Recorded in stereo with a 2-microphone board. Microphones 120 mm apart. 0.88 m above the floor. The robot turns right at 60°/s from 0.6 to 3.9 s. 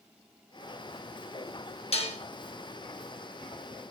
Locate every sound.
1.9 s dishes clattering: 55° left (ahead or behind), 0.9 m; by 2.2 s 65° left (ahead or behind), 0.9 m